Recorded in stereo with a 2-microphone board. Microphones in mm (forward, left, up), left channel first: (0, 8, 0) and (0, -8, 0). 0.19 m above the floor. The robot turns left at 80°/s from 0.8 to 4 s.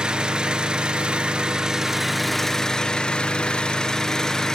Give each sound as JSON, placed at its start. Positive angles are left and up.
{"t": 0.0, "sound": "an engine running", "azimuth_deg": -75, "distance_m": 1.6}